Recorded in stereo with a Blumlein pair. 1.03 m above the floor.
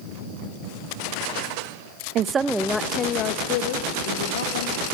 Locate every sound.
2.1 s a woman speaking: 35° right, 0.8 m; by 4.8 s 60° left, 2.5 m